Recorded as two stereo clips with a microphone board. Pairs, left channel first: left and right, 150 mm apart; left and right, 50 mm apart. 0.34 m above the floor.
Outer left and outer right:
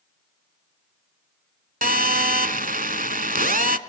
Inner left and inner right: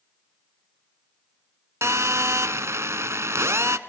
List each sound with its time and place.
1.8 s a phone buzzing: 70° right (ahead or behind), 0.9 m